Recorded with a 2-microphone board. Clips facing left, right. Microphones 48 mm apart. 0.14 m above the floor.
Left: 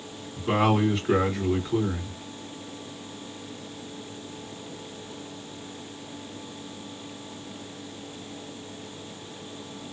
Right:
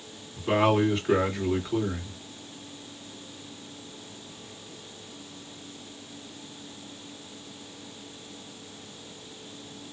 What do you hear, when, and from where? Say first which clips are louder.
0.4 s a man speaking: even; centre (ahead or behind), 1.8 m